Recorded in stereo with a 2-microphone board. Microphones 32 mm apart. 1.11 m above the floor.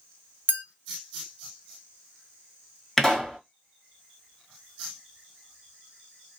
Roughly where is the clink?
Right.